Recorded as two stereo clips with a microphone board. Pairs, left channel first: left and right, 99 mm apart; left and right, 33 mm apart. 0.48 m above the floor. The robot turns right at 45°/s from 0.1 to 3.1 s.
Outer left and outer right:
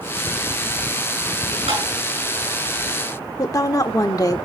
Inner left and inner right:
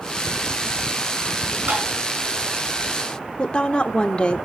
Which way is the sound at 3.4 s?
35° left (ahead or behind).